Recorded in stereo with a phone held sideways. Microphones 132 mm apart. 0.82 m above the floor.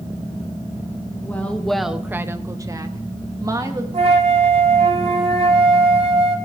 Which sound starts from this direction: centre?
A woman speaking, at 1.2 s.